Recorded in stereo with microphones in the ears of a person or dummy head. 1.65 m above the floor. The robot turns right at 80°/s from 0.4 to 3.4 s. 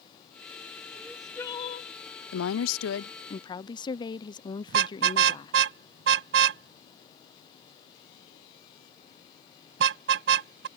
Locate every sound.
0.9 s crying: 20° right; by 1.9 s 60° left
2.3 s a woman speaking: 75° left; by 5.5 s 160° left
4.7 s a car horn: 70° right (ahead or behind)